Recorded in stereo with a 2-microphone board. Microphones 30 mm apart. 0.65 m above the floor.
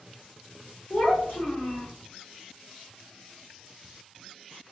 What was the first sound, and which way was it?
A child speaking, 40° left (ahead or behind).